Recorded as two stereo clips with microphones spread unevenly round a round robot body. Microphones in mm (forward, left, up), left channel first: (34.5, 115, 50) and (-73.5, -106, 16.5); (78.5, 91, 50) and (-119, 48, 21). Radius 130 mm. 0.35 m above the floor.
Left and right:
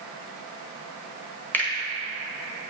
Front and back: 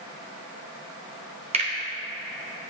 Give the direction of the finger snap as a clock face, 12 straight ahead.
7 o'clock.